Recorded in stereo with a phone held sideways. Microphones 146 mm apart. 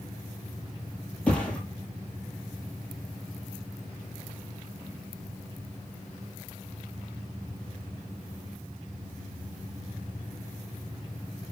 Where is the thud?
10° left (ahead or behind), 4.5 m.